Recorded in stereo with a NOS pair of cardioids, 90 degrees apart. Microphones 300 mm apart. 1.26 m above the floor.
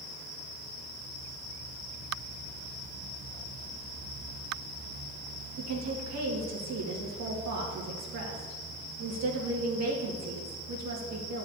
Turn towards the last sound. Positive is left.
turn(degrees=-60)